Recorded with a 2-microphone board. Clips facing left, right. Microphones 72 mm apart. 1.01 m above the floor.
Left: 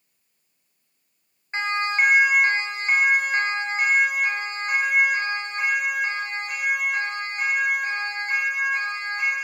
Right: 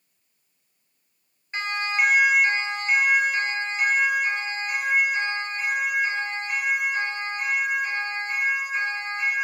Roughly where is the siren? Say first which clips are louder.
Left 2 dB; left.